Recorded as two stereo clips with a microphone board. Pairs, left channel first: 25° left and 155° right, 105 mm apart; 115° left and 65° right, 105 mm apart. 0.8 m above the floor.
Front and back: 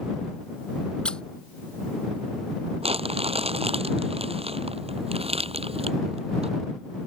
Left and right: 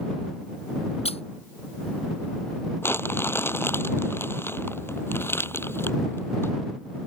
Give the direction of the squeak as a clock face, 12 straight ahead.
9 o'clock.